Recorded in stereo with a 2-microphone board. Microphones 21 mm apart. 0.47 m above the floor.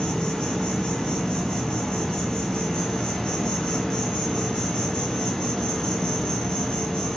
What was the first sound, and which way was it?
An insect, 50° left (ahead or behind).